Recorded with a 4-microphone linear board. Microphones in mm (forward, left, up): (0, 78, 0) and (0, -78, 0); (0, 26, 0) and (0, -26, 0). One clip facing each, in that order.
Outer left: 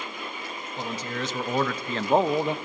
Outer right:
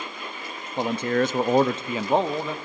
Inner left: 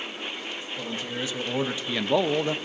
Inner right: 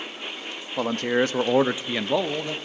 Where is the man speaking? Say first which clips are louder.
Outer right 10 dB, inner right 12 dB; 65° right (ahead or behind), 0.8 m; by 2.5 s 20° left (ahead or behind), 0.7 m.